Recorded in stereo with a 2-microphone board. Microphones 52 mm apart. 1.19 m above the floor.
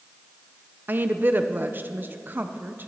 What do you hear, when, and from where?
0.9 s a woman speaking: 40° right (ahead or behind), 0.7 m